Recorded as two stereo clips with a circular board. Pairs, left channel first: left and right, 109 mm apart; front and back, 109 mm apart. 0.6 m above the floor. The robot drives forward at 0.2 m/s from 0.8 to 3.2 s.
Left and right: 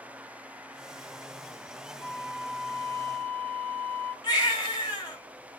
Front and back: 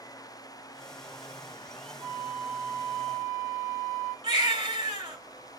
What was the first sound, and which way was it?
A flute, 140° left.